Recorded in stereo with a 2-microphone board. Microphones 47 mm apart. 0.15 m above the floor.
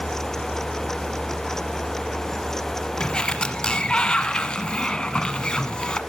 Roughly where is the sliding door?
Centre.